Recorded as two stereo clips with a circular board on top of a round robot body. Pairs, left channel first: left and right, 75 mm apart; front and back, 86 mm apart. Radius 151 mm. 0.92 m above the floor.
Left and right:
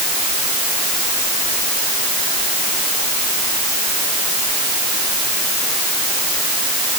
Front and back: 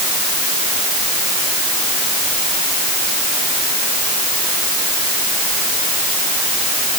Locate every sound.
Only background noise.